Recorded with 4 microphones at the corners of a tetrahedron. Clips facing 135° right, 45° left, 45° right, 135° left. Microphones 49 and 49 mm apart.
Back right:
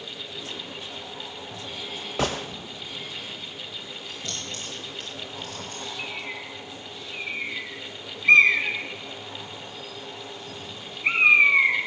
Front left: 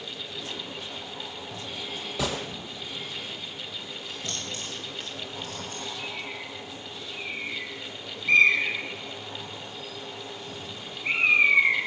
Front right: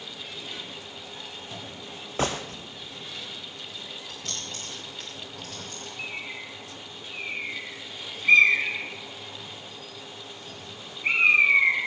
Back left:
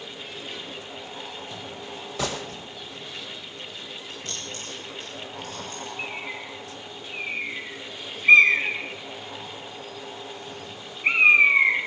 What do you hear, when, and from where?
2.2 s a gunshot: 95° right, 1.6 m
4.1 s keys jangling: 40° right, 7.5 m
6.0 s a bird: 150° right, 4.5 m